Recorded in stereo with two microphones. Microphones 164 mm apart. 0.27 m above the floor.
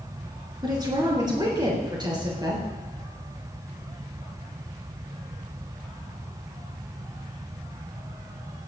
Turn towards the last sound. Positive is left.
turn(degrees=-25)  # may be behind; listen again after turning